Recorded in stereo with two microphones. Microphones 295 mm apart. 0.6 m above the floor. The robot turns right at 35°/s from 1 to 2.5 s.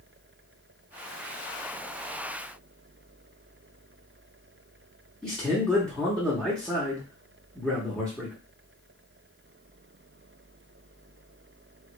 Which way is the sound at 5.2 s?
5° left (ahead or behind).